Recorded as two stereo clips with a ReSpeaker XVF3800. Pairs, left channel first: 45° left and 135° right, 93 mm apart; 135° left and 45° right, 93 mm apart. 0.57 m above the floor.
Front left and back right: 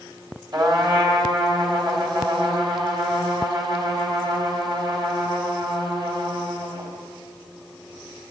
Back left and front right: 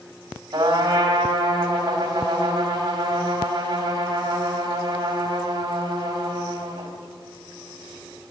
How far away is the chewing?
I don't hear chewing.